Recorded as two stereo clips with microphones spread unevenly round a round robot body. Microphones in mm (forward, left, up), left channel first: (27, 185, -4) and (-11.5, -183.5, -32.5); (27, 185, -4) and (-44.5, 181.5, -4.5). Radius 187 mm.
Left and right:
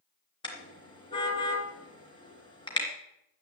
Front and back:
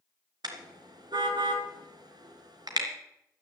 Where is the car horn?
165° left, 3 m.